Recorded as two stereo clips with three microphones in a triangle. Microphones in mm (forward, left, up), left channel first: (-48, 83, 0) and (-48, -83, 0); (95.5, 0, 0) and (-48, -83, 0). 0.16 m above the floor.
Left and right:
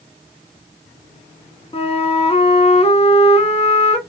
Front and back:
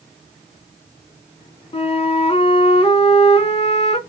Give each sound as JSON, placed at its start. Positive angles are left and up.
{"t": 1.7, "sound": "a flute", "azimuth_deg": 60, "distance_m": 0.7}